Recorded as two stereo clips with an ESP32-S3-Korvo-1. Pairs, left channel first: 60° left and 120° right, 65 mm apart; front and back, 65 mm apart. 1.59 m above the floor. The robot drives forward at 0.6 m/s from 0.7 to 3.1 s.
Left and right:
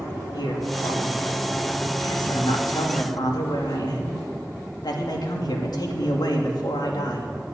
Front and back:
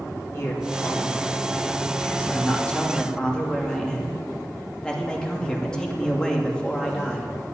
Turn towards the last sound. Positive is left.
turn(degrees=80)